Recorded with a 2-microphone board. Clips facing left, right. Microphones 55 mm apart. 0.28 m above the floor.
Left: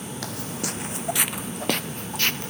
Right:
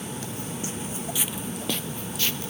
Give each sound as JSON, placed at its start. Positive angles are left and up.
{"t": 0.2, "sound": "footsteps", "side_deg": 70}